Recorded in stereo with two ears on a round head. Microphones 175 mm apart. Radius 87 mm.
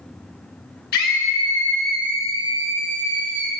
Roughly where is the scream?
Left.